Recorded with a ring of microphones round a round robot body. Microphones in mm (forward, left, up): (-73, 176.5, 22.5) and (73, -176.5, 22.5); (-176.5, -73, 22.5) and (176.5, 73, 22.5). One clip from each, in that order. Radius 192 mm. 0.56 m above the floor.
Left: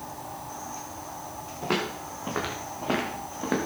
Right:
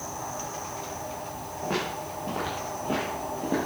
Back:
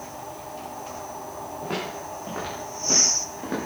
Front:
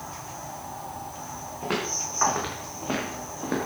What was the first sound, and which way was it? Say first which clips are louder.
Footsteps: left 1 dB, front 4 dB; 85° left.